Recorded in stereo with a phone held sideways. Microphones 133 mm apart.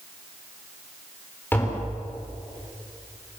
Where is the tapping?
15° left (ahead or behind), 6 m.